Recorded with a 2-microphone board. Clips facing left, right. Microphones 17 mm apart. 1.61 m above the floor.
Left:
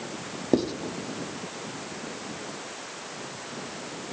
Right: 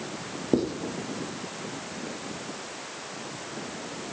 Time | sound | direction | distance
0.5 | writing | 20° left (ahead or behind) | 1.1 m